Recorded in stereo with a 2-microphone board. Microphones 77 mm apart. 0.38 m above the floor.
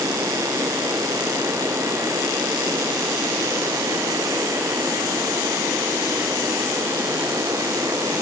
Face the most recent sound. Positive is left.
No sound to turn to.